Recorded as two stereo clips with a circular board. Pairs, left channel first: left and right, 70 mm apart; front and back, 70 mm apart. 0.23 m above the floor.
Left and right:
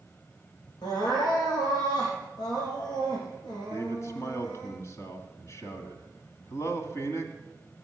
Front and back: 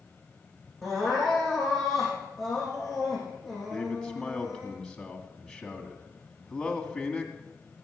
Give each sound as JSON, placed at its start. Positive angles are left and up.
{"t": 0.8, "sound": "crying", "azimuth_deg": 90, "distance_m": 5.5}
{"t": 3.7, "sound": "a man speaking", "azimuth_deg": 75, "distance_m": 1.9}